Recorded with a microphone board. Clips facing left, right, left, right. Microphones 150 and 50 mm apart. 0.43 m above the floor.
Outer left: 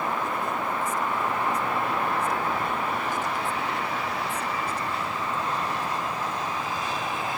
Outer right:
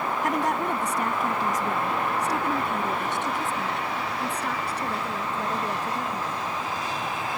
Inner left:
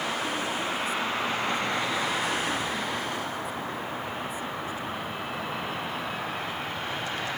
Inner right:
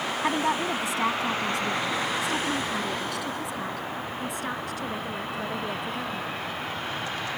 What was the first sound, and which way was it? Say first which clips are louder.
A woman speaking: outer right 4 dB, inner right 4 dB; 75° right (ahead or behind).